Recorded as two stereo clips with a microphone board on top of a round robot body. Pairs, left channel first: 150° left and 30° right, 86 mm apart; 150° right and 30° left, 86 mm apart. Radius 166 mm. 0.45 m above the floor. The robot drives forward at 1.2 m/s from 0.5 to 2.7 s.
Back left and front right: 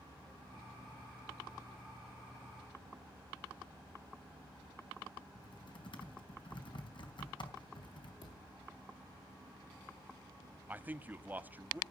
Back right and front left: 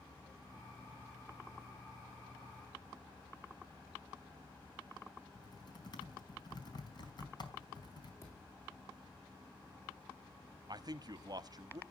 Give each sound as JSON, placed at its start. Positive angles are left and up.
{"t": 5.3, "sound": "typing on a keyboard", "azimuth_deg": 175, "distance_m": 4.0}
{"t": 8.2, "sound": "a thud", "azimuth_deg": 150, "distance_m": 7.5}
{"t": 10.7, "sound": "a man speaking", "azimuth_deg": 30, "distance_m": 1.3}